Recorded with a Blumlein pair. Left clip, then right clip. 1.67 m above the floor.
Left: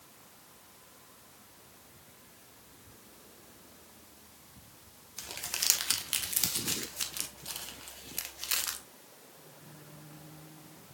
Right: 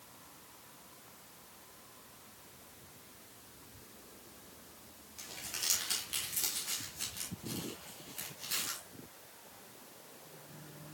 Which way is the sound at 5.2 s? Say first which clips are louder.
Left 5 dB; 30° left.